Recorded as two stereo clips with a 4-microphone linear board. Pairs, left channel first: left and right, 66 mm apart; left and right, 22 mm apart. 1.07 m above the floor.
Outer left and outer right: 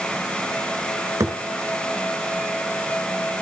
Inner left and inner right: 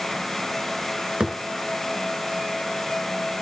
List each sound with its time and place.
1.2 s a thud: 55° right (ahead or behind), 3 m